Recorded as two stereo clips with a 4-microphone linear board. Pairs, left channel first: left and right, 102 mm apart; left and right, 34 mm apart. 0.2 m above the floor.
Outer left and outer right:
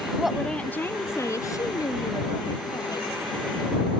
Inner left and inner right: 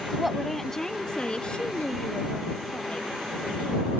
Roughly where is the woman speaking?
Centre.